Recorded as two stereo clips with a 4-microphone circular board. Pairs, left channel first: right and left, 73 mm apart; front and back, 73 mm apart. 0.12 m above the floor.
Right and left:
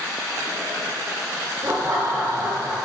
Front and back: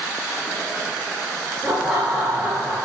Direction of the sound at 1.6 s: 110° left.